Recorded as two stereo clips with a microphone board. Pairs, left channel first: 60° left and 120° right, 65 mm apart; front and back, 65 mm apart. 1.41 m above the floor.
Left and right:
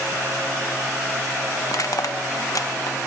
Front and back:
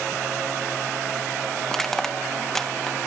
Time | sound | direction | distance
1.7 | crushing | 85° left | 1.5 m